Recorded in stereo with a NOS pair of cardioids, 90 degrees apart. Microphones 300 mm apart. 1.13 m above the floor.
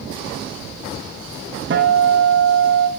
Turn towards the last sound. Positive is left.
turn(degrees=-40)